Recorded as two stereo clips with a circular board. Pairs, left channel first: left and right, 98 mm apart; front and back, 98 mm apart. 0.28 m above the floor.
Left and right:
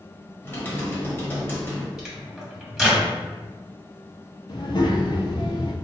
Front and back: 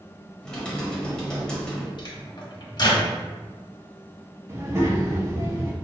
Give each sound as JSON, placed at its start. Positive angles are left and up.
{"t": 0.4, "sound": "typing on a keyboard", "azimuth_deg": 65, "distance_m": 1.0}
{"t": 2.0, "sound": "a microwave", "azimuth_deg": -5, "distance_m": 1.2}
{"t": 4.5, "sound": "a child speaking", "azimuth_deg": 120, "distance_m": 1.0}